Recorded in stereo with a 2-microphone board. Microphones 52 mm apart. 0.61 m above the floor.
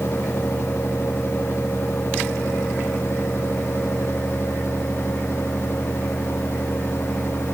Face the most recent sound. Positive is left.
No sound to turn to.